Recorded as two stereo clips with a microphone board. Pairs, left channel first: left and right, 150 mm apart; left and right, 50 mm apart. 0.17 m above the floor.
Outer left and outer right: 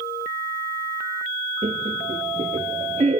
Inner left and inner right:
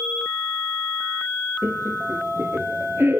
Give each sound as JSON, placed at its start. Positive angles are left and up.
{"t": 1.6, "sound": "laughter", "side_deg": -55, "distance_m": 2.5}